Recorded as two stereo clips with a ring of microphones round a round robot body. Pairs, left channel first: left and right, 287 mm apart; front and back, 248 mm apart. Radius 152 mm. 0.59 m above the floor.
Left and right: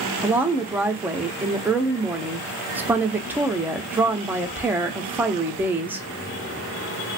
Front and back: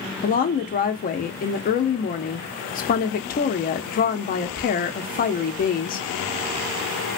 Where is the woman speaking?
10° right, 0.6 m.